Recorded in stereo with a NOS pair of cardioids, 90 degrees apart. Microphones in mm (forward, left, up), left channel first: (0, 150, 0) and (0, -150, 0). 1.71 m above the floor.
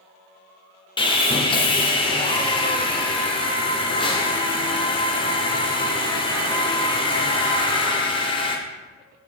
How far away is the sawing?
About 0.8 m.